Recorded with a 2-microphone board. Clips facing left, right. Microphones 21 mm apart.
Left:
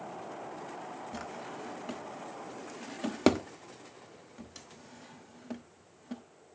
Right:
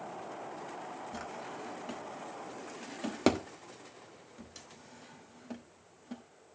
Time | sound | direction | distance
1.1 | a drawer | 5° left (ahead or behind) | 1.0 m